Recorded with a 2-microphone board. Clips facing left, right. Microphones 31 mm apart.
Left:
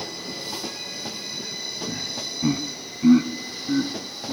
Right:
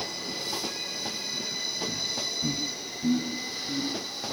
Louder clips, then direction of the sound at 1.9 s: Left 1 dB; 20° left (ahead or behind).